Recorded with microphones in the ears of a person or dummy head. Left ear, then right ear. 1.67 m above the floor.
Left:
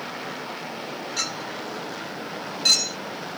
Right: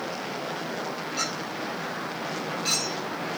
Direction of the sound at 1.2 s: 50° left (ahead or behind).